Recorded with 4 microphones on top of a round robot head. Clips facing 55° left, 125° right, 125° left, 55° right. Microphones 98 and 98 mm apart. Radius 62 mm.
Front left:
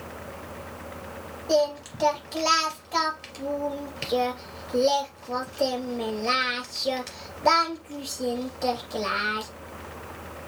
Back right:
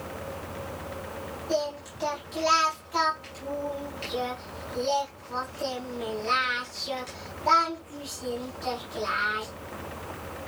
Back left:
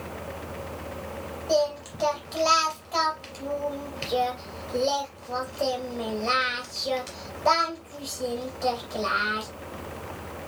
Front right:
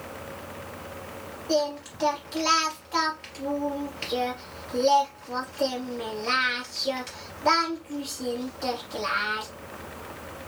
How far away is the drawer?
I don't hear a drawer.